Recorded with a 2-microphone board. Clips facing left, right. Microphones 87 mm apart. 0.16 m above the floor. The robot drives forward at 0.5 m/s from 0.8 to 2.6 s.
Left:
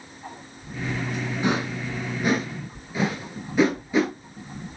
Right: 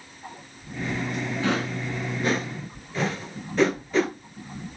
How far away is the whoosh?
About 0.7 m.